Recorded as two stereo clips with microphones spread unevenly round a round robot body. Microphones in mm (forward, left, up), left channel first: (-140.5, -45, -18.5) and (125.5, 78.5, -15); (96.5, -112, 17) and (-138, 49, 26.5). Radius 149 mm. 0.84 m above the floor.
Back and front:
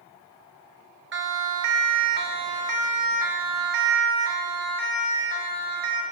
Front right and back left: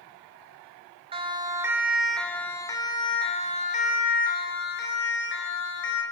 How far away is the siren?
About 2 m.